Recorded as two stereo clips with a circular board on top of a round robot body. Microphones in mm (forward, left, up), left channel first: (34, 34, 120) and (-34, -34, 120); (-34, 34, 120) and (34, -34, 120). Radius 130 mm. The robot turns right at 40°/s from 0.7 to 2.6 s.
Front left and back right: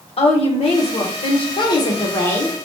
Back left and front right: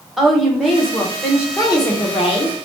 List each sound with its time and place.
0.2 s a woman speaking: 45° left, 1.1 m; by 1.5 s 75° left, 1.1 m
1.6 s a woman speaking: 80° left, 0.9 m; by 2.5 s 120° left, 0.9 m